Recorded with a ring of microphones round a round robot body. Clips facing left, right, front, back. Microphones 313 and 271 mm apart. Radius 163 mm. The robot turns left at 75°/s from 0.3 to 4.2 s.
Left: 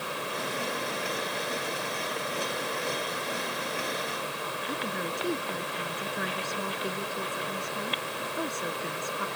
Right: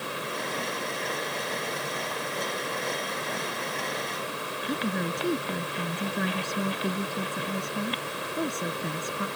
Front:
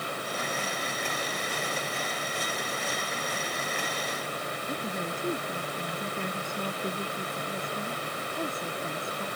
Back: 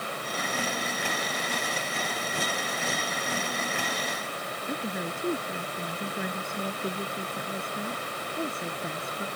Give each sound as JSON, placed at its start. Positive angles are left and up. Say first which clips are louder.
{"t": 4.7, "sound": "a woman speaking", "louder": "right 6 dB, back 2 dB", "azimuth_deg": -95}